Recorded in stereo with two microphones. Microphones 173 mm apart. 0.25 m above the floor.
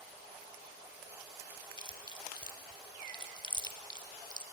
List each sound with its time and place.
1.8 s chewing: 25° left (ahead or behind), 0.6 m